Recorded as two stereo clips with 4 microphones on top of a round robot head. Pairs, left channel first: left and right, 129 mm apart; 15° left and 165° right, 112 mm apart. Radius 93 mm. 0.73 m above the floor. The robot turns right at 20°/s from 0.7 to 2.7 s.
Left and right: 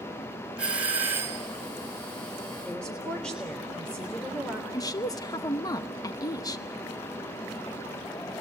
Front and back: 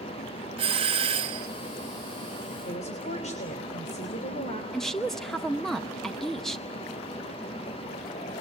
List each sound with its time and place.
0.6 s a doorbell: 170° right, 1.4 m; by 1.5 s 155° right, 1.4 m
2.6 s a woman speaking: 5° left, 3 m
4.7 s a woman speaking: 95° left, 0.9 m